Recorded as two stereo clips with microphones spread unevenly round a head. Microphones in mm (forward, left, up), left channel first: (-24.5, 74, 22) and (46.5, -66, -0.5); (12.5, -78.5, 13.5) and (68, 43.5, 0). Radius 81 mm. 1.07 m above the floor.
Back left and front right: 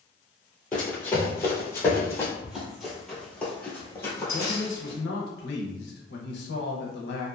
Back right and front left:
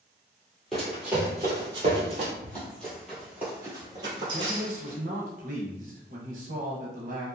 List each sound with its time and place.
0.7 s running footsteps: 170° left, 1.2 m; by 2.3 s 65° left, 1.3 m
2.4 s running footsteps: 160° right, 1.2 m; by 5.0 s 70° left, 1.4 m
4.3 s a man speaking: 100° left, 0.8 m